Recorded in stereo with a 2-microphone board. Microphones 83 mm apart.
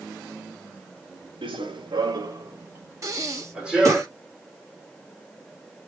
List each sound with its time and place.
1.4 s running footsteps: 85° right, 1.1 m; by 4.0 s 5° right (ahead or behind), 2 m
3.0 s breathing: 40° right (ahead or behind), 1.2 m